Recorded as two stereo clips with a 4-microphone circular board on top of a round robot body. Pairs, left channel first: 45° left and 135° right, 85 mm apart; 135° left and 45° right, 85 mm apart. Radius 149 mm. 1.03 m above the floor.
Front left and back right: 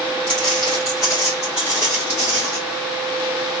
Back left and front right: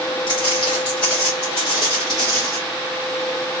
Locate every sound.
0.3 s footsteps: 100° left, 1.8 m; by 2.6 s 85° left, 1.0 m